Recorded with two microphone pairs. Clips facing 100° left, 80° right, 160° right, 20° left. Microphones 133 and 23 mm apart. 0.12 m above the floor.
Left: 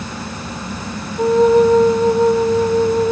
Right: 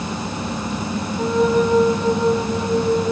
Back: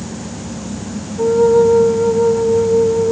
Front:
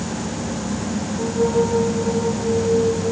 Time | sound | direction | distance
1.2 | a flute | 160° left | 2.5 m